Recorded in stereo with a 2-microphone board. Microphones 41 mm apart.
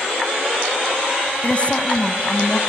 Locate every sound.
1.4 s a woman speaking: 30° left (ahead or behind), 1.8 m